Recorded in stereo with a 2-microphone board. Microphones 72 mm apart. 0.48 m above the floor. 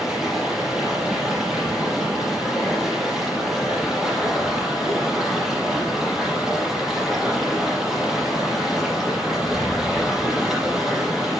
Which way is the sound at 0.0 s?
5° right (ahead or behind).